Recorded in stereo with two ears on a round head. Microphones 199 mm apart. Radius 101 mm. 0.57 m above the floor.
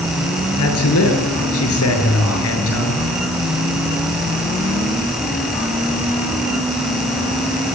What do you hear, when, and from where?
0.6 s a man speaking: 70° left (ahead or behind), 8.5 m; by 3.1 s 65° left (ahead or behind), 7.5 m